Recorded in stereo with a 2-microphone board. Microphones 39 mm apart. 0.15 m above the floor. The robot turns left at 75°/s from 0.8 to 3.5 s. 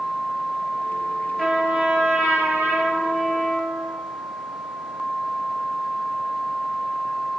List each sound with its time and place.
1.4 s a trumpet: 5° right, 1.0 m; by 3.9 s 165° right, 1.0 m